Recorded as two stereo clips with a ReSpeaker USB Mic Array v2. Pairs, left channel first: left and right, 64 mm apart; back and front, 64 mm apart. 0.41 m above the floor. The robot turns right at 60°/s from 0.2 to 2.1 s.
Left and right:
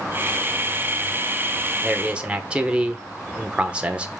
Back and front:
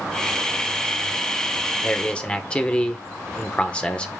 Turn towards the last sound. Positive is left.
turn(degrees=-135)